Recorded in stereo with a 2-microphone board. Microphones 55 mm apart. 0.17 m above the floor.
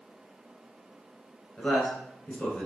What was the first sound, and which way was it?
A man speaking, 20° left (ahead or behind).